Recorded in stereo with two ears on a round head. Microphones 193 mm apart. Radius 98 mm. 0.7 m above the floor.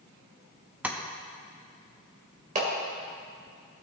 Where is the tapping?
5° right (ahead or behind), 0.8 m.